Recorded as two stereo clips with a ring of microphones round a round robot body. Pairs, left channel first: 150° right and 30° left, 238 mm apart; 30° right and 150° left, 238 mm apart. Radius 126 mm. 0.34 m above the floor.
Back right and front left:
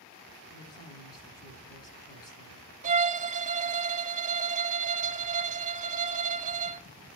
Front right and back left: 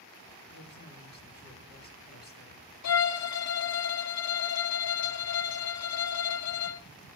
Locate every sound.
0.5 s a woman speaking: 75° right, 3 m
2.8 s a violin: 30° right, 0.7 m